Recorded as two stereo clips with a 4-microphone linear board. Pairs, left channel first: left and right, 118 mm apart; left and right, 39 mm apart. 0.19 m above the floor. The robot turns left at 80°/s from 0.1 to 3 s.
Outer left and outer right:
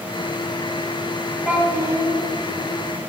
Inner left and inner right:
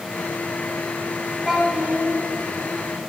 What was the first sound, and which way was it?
A child speaking, 10° right.